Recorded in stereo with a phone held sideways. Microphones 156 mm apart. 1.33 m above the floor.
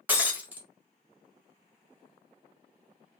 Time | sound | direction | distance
0.1 | breaking glass | 10° right (ahead or behind) | 1.3 m